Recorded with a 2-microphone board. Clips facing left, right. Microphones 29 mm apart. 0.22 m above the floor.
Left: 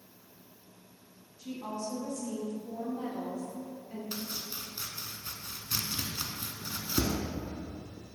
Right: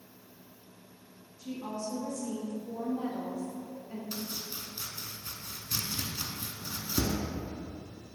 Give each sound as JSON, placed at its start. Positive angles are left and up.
{"t": 1.4, "sound": "a woman speaking", "side_deg": 15, "distance_m": 1.2}
{"t": 4.1, "sound": "chopping", "side_deg": 20, "distance_m": 0.5}